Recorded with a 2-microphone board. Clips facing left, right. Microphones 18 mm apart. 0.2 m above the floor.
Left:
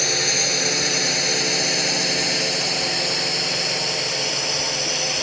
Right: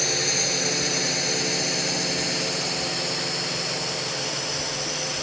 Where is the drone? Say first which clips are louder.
Left 3 dB; 20° left (ahead or behind); by 5.2 s 30° left (ahead or behind).